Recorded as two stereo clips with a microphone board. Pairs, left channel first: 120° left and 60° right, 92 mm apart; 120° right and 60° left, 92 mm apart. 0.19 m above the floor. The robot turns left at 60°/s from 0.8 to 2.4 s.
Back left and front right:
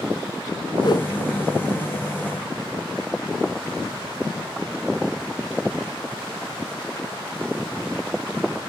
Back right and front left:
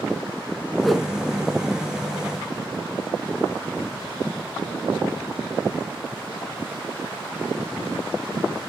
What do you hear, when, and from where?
0.8 s a whoosh: 155° left, 1.0 m; by 1.1 s 140° left, 1.0 m